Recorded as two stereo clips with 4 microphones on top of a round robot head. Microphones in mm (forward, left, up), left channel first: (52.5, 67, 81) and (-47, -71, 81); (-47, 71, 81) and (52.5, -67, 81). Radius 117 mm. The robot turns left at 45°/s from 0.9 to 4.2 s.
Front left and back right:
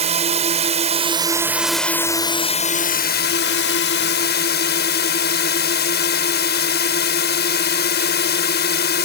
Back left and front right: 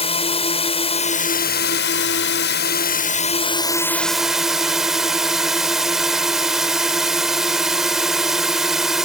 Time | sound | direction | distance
0.0 | a drone | straight behind | ?